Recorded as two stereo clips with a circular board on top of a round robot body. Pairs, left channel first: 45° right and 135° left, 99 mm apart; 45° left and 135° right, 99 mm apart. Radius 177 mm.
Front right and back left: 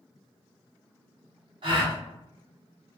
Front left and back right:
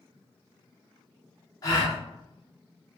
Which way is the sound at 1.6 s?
95° left.